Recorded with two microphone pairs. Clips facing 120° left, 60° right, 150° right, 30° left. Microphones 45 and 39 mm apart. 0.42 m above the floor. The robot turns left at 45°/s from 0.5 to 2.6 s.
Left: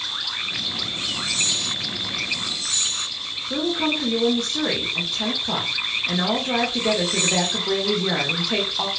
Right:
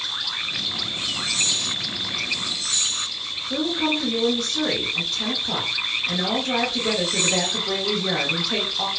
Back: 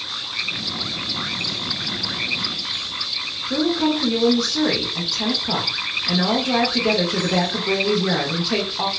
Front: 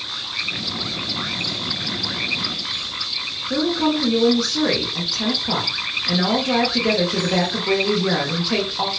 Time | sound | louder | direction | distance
3.5 | a woman speaking | even, even | 110° left | 0.7 m